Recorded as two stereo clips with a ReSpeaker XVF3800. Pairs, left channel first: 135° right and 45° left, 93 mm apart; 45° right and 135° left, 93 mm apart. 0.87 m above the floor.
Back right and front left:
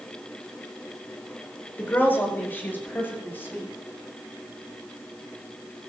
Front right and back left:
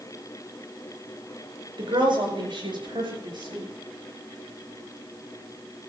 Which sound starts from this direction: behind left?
A woman speaking, at 1.8 s.